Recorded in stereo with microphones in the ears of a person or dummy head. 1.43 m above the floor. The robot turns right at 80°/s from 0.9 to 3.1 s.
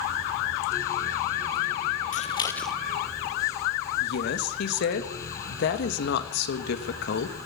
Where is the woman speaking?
65° left (ahead or behind), 1.6 m.